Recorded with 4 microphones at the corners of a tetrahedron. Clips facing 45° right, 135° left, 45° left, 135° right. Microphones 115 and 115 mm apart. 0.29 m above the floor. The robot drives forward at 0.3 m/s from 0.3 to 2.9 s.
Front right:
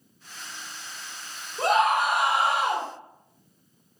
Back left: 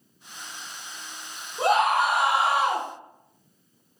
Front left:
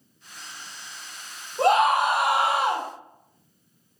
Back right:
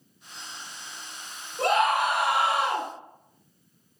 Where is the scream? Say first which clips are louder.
Back left 1 dB, front left 4 dB; 60° left, 2.5 m; by 2.9 s 70° left, 2 m.